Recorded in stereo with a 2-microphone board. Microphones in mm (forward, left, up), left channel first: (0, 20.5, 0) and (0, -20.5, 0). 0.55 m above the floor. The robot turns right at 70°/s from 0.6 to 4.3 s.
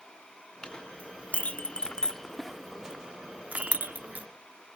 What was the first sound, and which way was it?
A clink, 25° left (ahead or behind).